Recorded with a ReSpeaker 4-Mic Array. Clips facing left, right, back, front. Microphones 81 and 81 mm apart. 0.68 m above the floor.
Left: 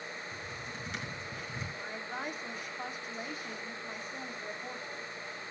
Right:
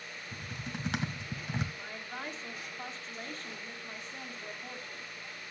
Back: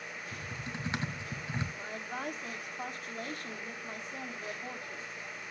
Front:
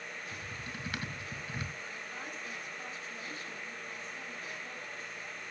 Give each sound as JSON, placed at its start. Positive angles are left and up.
{"t": 0.3, "sound": "typing on a keyboard", "azimuth_deg": -115, "distance_m": 1.8}
{"t": 1.8, "sound": "a woman speaking", "azimuth_deg": 165, "distance_m": 1.9}